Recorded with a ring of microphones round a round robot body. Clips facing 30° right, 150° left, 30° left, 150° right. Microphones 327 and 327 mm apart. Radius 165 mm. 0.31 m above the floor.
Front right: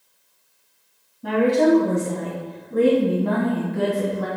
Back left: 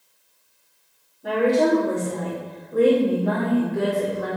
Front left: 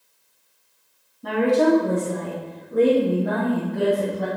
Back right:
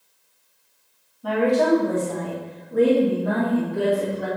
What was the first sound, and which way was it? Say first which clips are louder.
A woman speaking: front right 2 dB, front left 1 dB; 30° right.